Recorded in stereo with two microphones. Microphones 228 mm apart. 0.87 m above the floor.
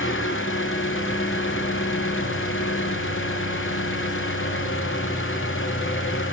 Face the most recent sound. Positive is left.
turn(degrees=60)  # may be behind; listen again after turning